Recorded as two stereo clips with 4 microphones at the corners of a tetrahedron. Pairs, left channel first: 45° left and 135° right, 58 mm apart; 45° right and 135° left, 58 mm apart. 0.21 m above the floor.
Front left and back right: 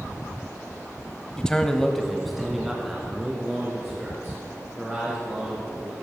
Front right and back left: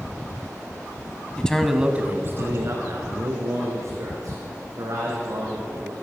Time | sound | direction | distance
1.4 | a man speaking | 10° right | 1.1 m